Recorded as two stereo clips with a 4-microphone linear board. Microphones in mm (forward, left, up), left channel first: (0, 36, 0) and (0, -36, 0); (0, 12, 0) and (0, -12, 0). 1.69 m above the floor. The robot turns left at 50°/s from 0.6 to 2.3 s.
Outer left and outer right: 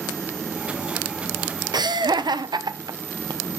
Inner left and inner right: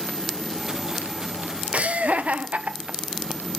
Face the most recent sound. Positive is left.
turn(degrees=-80)